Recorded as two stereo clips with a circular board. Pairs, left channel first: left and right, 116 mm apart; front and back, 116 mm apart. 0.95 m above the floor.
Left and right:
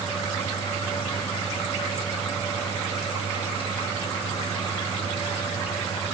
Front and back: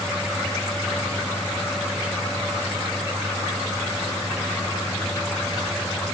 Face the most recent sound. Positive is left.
No sound to turn to.